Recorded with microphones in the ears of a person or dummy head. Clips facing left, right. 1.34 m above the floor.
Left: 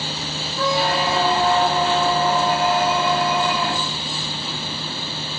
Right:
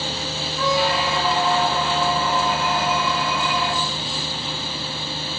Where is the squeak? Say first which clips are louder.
Left 1 dB; 40° left (ahead or behind), 1.5 m.